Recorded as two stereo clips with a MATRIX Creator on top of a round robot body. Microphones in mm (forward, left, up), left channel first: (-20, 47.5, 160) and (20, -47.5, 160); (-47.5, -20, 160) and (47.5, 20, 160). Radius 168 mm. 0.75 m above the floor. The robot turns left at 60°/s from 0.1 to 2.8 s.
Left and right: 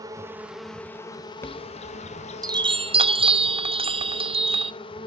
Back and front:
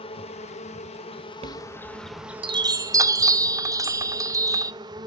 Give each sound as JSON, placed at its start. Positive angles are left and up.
{"t": 0.0, "sound": "an insect", "azimuth_deg": -125, "distance_m": 0.7}
{"t": 1.4, "sound": "a chime", "azimuth_deg": 45, "distance_m": 0.7}